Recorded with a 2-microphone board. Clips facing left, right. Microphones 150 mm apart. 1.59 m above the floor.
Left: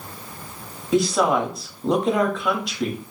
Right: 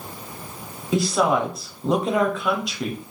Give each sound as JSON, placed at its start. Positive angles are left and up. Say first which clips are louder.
{"t": 0.9, "sound": "a woman speaking", "louder": "left 1 dB", "side_deg": 0, "distance_m": 0.6}